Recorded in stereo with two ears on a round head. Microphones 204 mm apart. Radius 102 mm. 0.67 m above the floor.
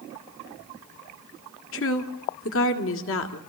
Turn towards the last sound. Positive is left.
turn(degrees=65)  # may be behind; listen again after turning